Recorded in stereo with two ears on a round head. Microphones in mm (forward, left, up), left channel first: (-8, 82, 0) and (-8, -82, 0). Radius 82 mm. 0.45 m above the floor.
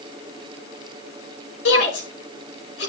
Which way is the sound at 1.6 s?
75° left (ahead or behind).